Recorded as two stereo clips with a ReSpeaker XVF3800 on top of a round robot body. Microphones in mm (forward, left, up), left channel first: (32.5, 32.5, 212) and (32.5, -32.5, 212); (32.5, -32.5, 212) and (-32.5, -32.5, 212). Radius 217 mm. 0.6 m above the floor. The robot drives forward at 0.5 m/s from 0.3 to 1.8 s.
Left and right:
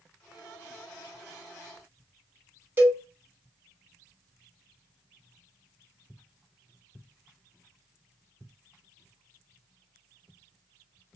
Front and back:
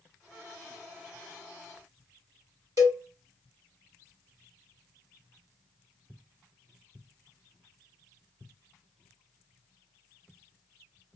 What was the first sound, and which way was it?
A cowbell, 150° right.